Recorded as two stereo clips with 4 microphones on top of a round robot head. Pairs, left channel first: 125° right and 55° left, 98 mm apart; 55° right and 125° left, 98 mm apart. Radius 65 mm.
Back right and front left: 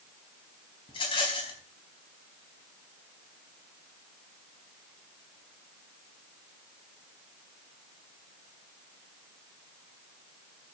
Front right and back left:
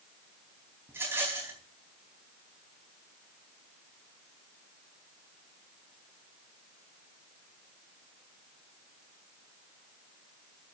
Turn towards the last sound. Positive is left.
turn(degrees=-165)